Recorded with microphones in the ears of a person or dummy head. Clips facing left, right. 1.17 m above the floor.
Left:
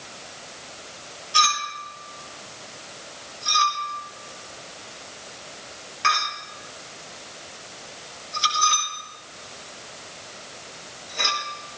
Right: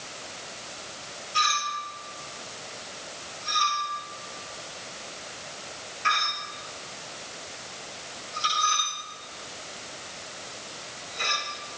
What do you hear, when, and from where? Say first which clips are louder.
1.3 s a clink: left 4 dB; 85° left, 4 m